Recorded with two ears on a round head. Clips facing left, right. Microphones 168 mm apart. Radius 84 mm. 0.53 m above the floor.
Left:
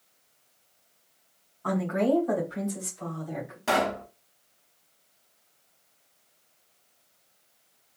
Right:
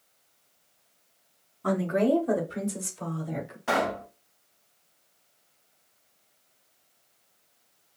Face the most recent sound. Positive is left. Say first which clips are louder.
# left 1 dB
turn(degrees=45)  # may be behind; listen again after turning